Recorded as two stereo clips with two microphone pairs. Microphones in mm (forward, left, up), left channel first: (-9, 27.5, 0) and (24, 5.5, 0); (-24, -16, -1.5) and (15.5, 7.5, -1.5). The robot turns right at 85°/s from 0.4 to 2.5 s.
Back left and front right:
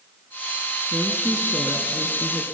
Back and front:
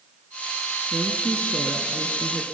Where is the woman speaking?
5° left, 1.4 m; by 2.4 s 135° left, 1.4 m.